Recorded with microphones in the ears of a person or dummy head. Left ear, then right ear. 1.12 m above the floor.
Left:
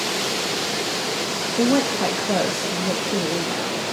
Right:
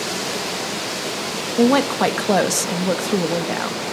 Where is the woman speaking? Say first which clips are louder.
Right 4 dB; 60° right (ahead or behind), 1.0 m.